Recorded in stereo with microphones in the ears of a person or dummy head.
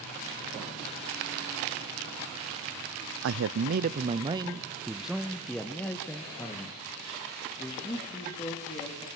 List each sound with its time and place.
3.2 s a man speaking: 65° right (ahead or behind), 0.7 m; by 9.1 s 20° left (ahead or behind), 3.5 m